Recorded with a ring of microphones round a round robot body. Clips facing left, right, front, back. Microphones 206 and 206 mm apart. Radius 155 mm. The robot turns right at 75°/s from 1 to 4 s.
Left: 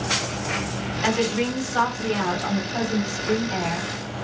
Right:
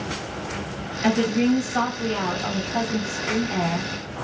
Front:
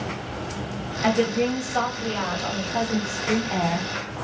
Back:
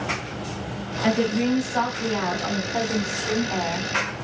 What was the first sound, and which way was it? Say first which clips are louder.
A woman speaking: right 4 dB, even; 80° left.